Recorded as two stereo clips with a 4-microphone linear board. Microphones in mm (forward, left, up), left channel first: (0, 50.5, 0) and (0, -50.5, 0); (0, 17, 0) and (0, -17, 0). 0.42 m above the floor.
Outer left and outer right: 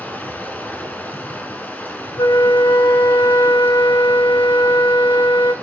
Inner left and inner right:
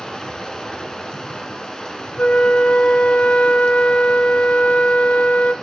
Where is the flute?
45° left (ahead or behind), 0.7 m.